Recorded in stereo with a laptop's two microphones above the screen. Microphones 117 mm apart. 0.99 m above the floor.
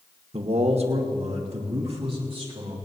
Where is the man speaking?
60° right (ahead or behind), 1.0 m; by 2.8 s 55° right (ahead or behind), 3.5 m.